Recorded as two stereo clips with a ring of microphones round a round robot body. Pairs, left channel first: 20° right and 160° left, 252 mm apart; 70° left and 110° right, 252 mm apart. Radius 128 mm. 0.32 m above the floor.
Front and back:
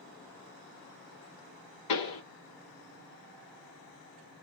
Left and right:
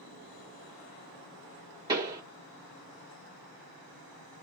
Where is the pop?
40° right, 2 m.